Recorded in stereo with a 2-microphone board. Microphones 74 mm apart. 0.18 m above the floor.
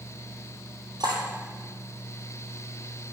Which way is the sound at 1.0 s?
65° right (ahead or behind).